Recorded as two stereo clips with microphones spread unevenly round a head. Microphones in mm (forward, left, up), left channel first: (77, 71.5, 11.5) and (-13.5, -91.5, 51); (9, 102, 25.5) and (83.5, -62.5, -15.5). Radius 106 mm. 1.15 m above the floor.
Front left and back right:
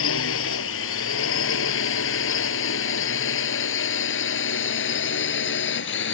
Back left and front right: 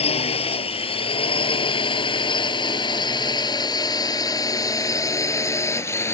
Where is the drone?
60° left; by 6.1 s 40° left.